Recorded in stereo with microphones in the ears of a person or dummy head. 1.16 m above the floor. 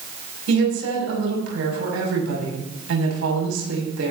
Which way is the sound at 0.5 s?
90° right.